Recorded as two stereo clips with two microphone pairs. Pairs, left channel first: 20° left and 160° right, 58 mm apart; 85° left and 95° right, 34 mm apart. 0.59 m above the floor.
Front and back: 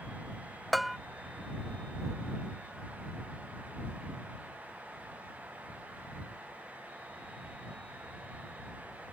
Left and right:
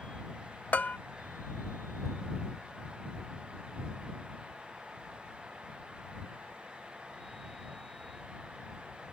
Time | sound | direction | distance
0.7 | a bell | 110° left | ?